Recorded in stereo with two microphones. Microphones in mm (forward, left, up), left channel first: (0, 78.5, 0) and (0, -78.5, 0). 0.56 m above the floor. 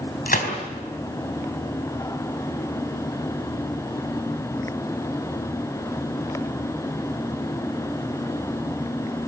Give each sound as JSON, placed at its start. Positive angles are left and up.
{"t": 0.3, "sound": "a gunshot", "side_deg": 65, "distance_m": 4.5}